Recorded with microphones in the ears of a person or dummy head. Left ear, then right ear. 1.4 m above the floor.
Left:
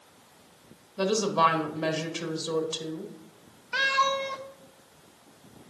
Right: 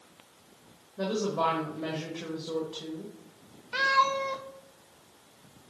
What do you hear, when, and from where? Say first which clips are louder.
1.0 s a woman speaking: left 6 dB; 75° left (ahead or behind), 1.8 m
3.7 s a cat meowing: even; 5° left (ahead or behind), 0.8 m